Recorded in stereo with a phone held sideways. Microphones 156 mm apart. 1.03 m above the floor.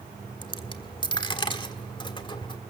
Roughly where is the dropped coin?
Left.